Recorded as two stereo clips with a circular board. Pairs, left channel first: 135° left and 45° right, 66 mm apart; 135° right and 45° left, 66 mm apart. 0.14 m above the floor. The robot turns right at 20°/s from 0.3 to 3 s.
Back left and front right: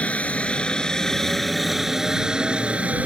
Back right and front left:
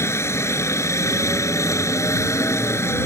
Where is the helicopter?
160° right; by 3.1 s 105° right.